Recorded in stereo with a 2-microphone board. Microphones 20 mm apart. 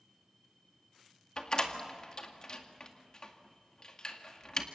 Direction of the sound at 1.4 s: 35° left (ahead or behind).